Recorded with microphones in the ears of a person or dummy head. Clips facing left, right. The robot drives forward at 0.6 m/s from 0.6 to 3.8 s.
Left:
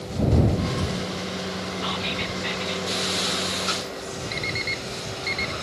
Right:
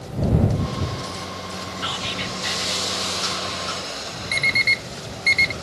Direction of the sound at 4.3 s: 40° right (ahead or behind).